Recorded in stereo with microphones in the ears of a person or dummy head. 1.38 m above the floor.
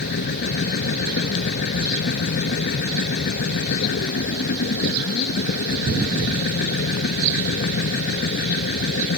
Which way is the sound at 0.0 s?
60° left (ahead or behind).